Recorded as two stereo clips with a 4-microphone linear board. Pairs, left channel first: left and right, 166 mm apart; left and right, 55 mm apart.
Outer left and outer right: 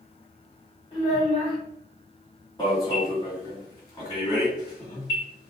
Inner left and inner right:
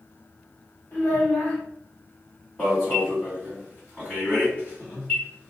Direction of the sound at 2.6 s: 25° left (ahead or behind).